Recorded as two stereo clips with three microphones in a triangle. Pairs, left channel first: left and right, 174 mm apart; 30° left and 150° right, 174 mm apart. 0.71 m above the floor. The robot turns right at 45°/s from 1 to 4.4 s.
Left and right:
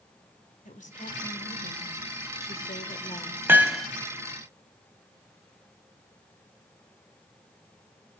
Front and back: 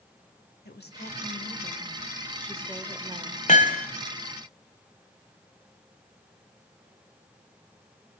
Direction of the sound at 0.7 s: 50° left.